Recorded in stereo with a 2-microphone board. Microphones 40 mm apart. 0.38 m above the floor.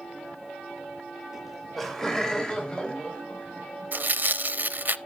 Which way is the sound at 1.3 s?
10° right (ahead or behind).